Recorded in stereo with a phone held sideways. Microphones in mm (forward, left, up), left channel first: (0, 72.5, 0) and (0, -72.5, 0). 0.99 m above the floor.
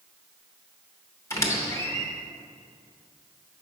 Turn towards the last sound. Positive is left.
turn(degrees=20)  # may be behind; listen again after turning